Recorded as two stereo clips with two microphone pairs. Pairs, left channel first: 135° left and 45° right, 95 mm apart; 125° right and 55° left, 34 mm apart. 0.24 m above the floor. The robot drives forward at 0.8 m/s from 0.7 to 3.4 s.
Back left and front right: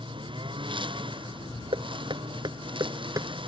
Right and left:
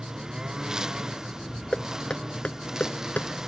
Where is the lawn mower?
15° right.